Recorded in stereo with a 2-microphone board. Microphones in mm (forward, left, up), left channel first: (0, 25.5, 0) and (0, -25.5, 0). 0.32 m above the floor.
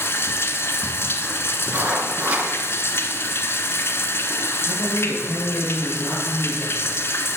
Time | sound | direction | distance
0.0 | running water | 50° left (ahead or behind) | 1.1 m
1.7 | writing | 30° right (ahead or behind) | 3.5 m
4.6 | a man speaking | 60° left (ahead or behind) | 5 m